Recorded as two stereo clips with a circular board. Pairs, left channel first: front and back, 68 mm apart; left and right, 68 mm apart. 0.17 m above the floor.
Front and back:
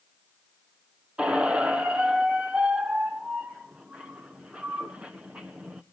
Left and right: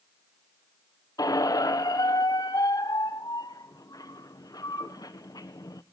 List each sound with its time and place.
1.2 s a squeak: 105° left, 0.7 m